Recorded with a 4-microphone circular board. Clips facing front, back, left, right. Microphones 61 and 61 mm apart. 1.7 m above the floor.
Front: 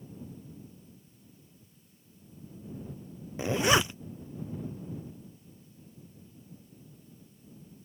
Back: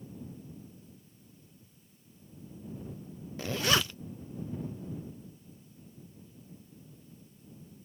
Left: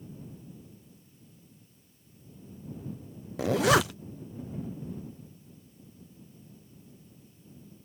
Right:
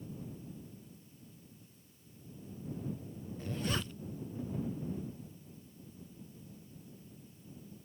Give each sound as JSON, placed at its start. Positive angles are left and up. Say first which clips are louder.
{"t": 3.4, "sound": "a zipper", "louder": "front 4 dB, left 15 dB", "azimuth_deg": 75}